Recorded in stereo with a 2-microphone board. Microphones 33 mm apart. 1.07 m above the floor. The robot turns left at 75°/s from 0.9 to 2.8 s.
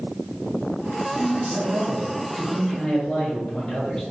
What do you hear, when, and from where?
1.2 s a man speaking: 85° right, 1.8 m; by 4.0 s 155° left, 1.8 m